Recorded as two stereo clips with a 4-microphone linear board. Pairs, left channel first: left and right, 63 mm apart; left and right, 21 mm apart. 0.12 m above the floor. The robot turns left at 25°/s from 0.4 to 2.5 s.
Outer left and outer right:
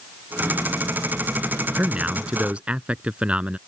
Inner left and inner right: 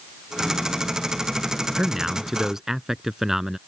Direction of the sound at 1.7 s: 20° right (ahead or behind).